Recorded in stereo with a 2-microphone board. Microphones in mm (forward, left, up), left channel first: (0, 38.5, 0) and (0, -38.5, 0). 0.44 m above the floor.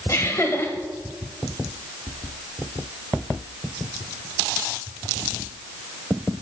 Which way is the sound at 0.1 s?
40° left (ahead or behind).